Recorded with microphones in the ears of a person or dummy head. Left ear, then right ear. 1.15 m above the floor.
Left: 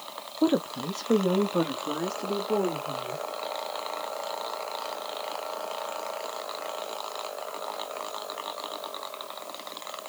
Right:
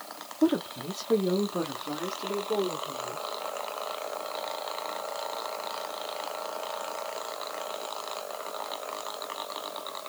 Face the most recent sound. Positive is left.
turn(degrees=45)  # may be behind; listen again after turning